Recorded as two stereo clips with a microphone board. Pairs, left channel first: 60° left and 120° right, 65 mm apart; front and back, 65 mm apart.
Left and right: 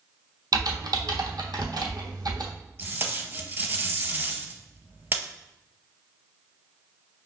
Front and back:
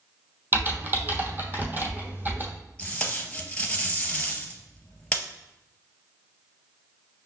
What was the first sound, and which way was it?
Typing on a keyboard, 120° right.